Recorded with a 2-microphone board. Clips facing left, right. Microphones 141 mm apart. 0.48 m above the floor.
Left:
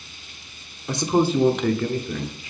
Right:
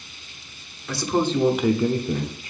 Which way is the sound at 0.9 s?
25° left (ahead or behind).